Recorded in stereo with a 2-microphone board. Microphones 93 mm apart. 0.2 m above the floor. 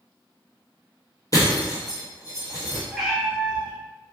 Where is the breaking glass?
40° left (ahead or behind), 1.3 m.